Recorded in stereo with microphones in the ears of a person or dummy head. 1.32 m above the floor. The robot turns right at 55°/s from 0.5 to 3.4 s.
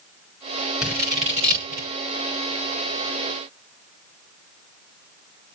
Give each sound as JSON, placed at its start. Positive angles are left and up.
{"t": 0.8, "sound": "scissors", "side_deg": 0, "distance_m": 6.0}